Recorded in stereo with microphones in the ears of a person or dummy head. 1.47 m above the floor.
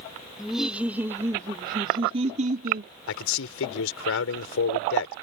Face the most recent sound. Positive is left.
turn(degrees=70)  # may be behind; listen again after turning